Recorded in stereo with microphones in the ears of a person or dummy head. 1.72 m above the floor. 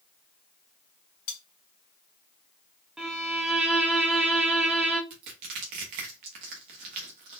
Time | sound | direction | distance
1.3 | cutlery clinking | 45° left (ahead or behind) | 2.5 m
3.0 | a violin | 5° right (ahead or behind) | 0.7 m
5.1 | crushing | 30° right (ahead or behind) | 1.2 m